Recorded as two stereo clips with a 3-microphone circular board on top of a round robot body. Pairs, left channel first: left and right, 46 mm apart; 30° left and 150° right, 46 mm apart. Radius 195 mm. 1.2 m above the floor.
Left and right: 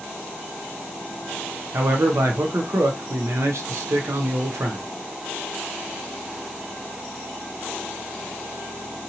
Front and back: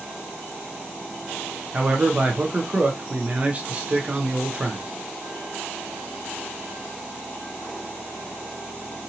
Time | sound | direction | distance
1.7 | a man speaking | 90° right | 0.6 m